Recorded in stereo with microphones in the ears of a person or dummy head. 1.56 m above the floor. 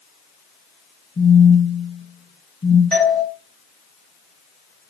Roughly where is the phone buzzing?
Left.